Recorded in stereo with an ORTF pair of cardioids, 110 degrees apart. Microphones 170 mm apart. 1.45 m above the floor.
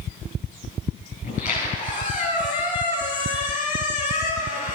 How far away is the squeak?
About 8.5 m.